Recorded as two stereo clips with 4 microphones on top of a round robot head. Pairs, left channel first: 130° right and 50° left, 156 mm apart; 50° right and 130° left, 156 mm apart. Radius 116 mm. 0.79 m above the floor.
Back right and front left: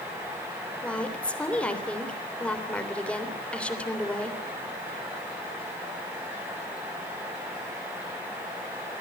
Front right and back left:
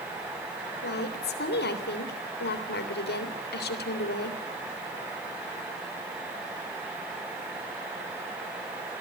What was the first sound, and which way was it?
A woman speaking, 50° right.